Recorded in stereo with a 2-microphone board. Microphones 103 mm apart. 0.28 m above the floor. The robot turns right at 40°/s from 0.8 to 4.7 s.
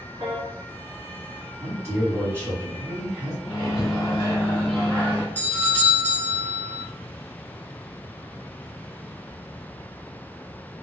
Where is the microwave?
115° left, 1.0 m; by 5.2 s 165° left, 1.0 m.